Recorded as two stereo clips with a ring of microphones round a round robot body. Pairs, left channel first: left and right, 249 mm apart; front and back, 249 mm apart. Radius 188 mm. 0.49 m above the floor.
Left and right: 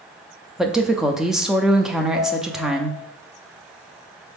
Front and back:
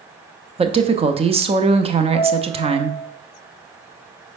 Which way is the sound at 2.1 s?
175° right.